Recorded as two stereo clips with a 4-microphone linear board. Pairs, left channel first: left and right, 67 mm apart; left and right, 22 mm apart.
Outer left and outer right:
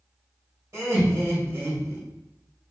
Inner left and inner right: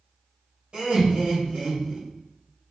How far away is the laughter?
About 2.5 m.